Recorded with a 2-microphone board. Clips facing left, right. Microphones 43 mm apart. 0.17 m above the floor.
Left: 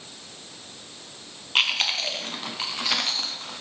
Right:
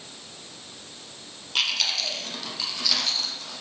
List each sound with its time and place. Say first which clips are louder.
1.6 s chewing: left 3 dB; 35° left (ahead or behind), 1.0 m